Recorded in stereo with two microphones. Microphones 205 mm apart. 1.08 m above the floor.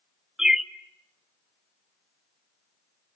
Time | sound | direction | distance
0.4 | a bird | centre (ahead or behind) | 0.7 m